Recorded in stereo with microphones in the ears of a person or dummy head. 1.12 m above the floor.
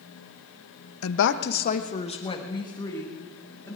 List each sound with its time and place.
1.0 s a woman speaking: 75° left (ahead or behind), 0.7 m; by 3.8 s 15° left (ahead or behind), 2.5 m